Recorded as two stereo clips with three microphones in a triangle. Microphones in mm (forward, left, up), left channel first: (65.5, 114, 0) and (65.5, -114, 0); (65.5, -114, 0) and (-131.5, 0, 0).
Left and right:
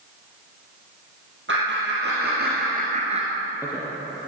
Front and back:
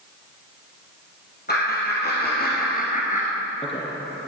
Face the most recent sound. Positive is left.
turn(degrees=-5)